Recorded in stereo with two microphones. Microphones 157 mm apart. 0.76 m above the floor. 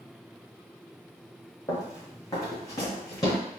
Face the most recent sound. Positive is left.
turn(degrees=25)  # may be behind; listen again after turning